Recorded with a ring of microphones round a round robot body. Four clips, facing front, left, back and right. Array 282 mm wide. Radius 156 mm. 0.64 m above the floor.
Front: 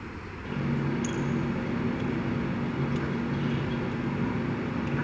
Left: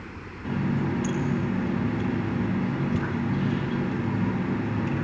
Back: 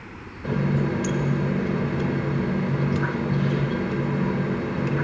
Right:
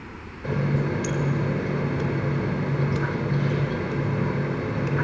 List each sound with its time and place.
0.4 s a running tap: 130° right, 1.9 m